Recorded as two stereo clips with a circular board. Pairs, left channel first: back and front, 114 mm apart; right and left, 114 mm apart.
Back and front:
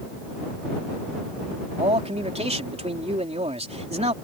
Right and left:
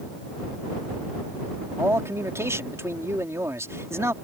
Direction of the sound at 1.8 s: 25° left.